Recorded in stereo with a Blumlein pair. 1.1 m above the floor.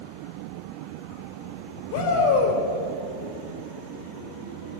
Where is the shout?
50° left, 5 m.